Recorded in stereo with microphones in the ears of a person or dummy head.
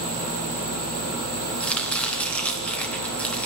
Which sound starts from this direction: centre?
Chopping, at 1.6 s.